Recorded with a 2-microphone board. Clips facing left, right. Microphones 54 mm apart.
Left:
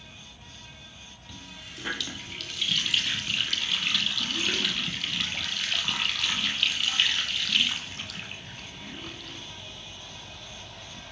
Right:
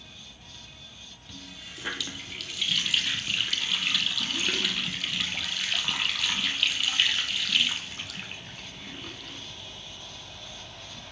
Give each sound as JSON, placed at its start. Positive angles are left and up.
{"t": 1.3, "sound": "a running tap", "side_deg": 0, "distance_m": 2.5}